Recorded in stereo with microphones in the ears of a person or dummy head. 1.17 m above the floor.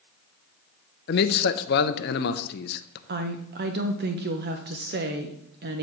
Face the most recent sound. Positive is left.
turn(degrees=-50)  # may be behind; listen again after turning